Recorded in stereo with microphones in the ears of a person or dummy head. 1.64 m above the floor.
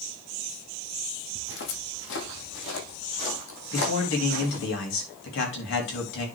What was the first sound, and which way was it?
Footsteps, 55° left (ahead or behind).